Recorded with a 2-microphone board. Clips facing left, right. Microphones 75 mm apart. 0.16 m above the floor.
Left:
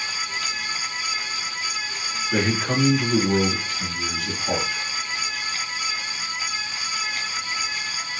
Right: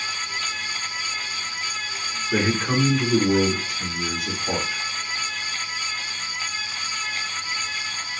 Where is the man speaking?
10° right (ahead or behind), 1.4 m.